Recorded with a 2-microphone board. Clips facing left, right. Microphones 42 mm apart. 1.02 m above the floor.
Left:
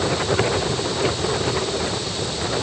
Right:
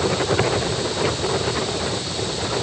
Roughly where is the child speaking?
No child speaking in this recording.